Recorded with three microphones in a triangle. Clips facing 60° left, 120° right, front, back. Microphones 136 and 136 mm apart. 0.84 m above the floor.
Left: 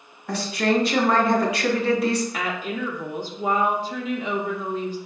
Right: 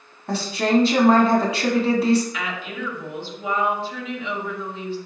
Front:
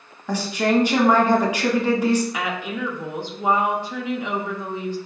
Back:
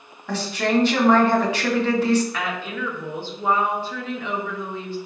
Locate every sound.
0.3 s a woman speaking: 75° right, 1.2 m
2.3 s a woman speaking: 70° left, 0.7 m